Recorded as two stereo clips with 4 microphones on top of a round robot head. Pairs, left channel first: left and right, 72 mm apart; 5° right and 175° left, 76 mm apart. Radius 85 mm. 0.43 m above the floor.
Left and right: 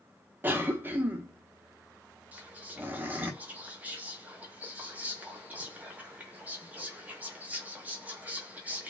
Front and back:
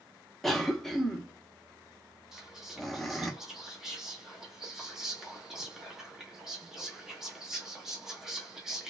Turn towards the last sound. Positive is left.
turn(degrees=-115)